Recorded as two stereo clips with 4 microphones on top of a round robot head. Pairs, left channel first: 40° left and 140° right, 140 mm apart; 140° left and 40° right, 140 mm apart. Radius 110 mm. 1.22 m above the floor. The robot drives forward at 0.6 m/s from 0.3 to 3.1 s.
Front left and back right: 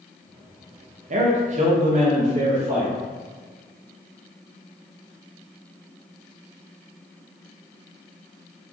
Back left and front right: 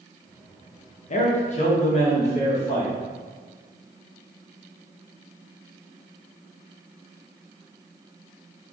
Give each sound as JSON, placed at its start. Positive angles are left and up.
{"t": 1.1, "sound": "a man speaking", "azimuth_deg": 180, "distance_m": 0.9}